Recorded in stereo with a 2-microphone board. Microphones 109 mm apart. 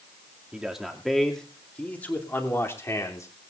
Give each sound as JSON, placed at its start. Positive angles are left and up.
{"t": 0.5, "sound": "a man speaking", "side_deg": -10, "distance_m": 2.0}